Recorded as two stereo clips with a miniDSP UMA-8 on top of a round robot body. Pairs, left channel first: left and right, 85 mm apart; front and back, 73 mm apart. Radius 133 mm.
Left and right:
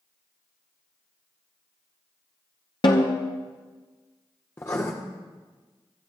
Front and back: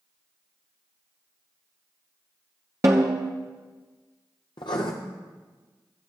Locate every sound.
2.8 s a snare drum: 125° left, 0.6 m
4.6 s writing: 30° left, 0.8 m